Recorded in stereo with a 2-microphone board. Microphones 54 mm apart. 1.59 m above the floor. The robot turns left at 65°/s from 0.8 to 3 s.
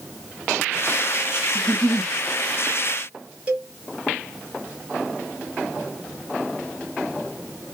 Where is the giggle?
10° right, 1.9 m; by 2.1 s 50° right, 1.9 m.